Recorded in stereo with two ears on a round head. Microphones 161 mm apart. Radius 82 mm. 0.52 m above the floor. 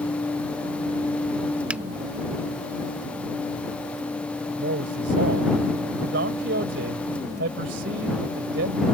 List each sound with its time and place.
1.7 s a finger snap: 10° right (ahead or behind)
4.6 s a man speaking: 65° right (ahead or behind)